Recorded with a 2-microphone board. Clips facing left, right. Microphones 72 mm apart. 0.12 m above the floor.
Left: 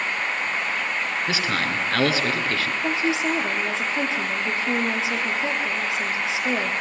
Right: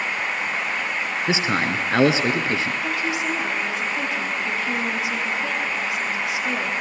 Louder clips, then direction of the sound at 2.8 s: Left 2 dB; 25° left (ahead or behind).